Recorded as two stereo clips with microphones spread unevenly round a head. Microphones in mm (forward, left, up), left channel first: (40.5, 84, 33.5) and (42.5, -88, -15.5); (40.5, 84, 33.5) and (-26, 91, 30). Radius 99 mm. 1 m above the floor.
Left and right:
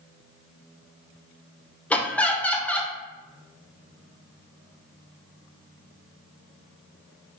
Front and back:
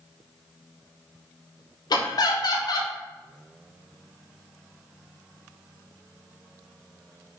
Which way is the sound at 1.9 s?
Straight ahead.